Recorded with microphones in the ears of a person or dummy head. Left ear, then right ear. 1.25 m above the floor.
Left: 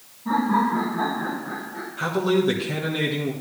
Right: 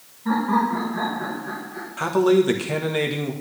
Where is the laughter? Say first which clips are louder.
Even; 50° right (ahead or behind), 4 m; by 1.9 s 70° right (ahead or behind), 5 m.